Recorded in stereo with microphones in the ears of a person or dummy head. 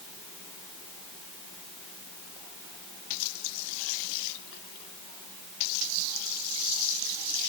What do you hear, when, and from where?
Only background noise.